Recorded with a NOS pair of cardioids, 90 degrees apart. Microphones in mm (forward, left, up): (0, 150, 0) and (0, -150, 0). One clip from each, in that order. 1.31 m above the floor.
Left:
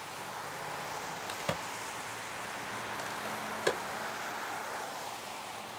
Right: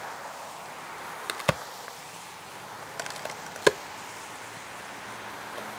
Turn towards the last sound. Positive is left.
turn(degrees=-55)